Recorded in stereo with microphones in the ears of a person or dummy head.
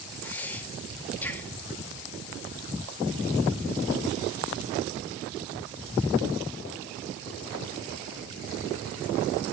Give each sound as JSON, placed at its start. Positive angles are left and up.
{"t": 0.2, "sound": "breathing", "side_deg": 10, "distance_m": 2.0}